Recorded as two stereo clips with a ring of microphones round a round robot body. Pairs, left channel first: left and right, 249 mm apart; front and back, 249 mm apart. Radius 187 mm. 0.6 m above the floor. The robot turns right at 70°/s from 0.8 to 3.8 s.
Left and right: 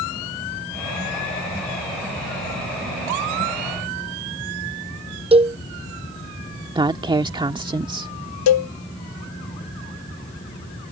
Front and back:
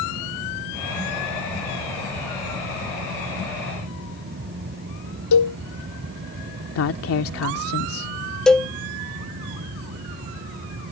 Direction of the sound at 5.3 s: 20° right.